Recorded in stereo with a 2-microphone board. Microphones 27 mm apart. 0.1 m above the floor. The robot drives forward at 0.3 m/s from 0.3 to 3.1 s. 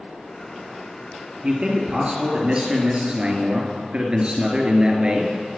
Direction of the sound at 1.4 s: 35° right (ahead or behind).